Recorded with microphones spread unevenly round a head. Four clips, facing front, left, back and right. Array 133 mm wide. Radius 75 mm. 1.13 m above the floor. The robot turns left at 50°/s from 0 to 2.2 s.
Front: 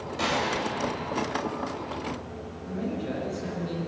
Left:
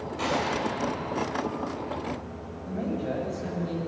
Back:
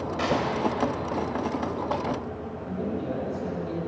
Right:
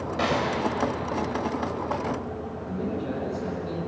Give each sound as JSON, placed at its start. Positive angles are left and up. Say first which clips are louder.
{"t": 0.2, "sound": "a gunshot", "louder": "right 2 dB, back 1 dB", "azimuth_deg": -90, "distance_m": 4.5}
{"t": 2.6, "sound": "a man speaking", "louder": "left 1 dB, back 1 dB", "azimuth_deg": 110, "distance_m": 7.5}